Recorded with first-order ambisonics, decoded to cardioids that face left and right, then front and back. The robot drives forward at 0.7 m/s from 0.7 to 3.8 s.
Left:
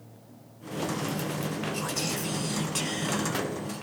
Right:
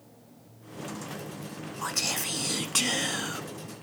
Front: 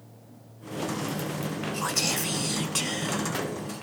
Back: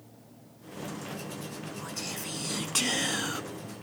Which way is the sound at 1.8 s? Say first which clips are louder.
Right 1 dB, front 11 dB; 20° right.